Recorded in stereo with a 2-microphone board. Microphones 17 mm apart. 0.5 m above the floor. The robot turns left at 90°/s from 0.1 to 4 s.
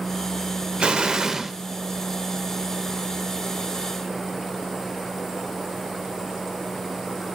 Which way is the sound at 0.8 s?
100° right.